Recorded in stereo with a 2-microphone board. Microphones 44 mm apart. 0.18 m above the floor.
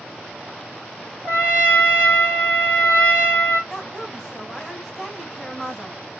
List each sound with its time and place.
1.2 s a trumpet: 35° right (ahead or behind), 1.9 m
3.7 s a woman speaking: centre (ahead or behind), 1.2 m